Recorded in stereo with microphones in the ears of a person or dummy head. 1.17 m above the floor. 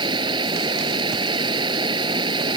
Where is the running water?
25° right (ahead or behind).